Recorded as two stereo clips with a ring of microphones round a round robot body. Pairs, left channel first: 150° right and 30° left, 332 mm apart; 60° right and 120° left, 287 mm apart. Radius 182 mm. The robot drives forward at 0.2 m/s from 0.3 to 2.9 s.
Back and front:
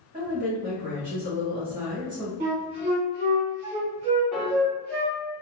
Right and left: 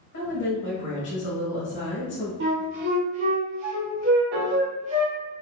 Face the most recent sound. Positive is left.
turn(degrees=120)